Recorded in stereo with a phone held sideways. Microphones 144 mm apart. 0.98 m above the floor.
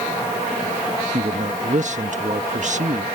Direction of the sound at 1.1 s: 60° right (ahead or behind).